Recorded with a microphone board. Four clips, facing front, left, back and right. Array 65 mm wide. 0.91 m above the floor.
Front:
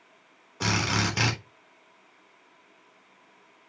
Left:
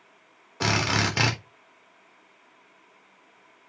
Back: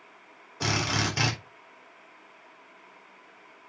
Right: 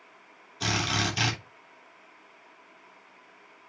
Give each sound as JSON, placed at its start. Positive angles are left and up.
{"t": 0.6, "sound": "a drill", "azimuth_deg": 85, "distance_m": 3.5}